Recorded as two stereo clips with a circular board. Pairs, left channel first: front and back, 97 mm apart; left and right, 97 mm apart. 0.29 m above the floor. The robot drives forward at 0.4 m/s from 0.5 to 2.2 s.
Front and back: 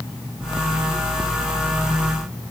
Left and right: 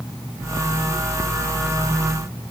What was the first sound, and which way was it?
Only background noise.